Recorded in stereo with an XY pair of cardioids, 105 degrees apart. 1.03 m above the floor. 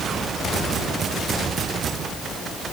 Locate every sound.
Only background noise.